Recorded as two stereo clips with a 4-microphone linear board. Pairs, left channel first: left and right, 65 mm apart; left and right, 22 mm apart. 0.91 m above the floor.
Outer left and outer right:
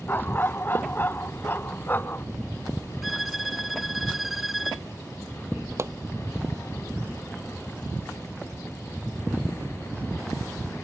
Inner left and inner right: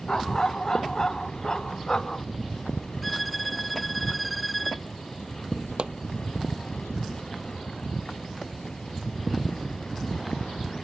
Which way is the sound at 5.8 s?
40° right (ahead or behind).